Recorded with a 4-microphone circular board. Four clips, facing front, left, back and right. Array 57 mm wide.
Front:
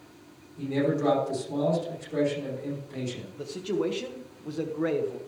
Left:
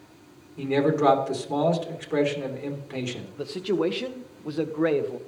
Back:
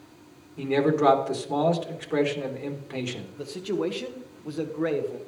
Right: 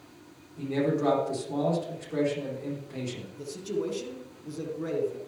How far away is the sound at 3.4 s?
About 1.2 m.